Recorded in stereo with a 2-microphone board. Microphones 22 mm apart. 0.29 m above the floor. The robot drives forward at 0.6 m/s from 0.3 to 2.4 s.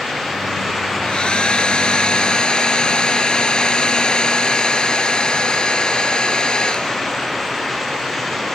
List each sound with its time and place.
1.0 s a hair dryer: 45° left (ahead or behind); by 7.4 s 40° left (ahead or behind)